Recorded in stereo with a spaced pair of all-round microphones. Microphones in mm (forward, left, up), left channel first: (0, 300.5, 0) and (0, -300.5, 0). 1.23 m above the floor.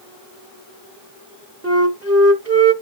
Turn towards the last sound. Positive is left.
turn(degrees=-25)  # may be behind; listen again after turning